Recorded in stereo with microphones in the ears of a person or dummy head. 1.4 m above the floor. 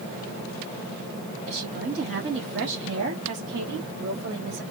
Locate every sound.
1.5 s a woman speaking: 50° right (ahead or behind), 2 m; by 4.6 s 55° right (ahead or behind), 1.5 m